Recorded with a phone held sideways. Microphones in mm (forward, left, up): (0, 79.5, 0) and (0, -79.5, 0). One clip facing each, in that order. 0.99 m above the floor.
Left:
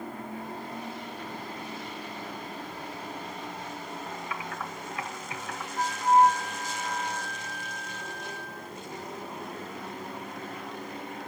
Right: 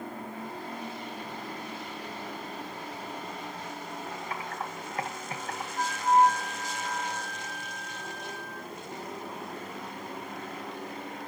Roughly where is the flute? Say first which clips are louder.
Left 2 dB; right.